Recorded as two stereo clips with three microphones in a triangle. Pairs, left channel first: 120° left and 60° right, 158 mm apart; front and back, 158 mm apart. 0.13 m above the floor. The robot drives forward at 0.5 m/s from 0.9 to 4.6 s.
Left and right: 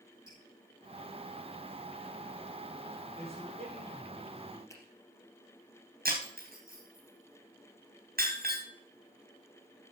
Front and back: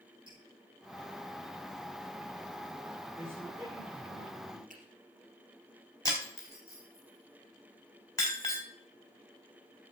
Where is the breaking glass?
70° right, 4 m.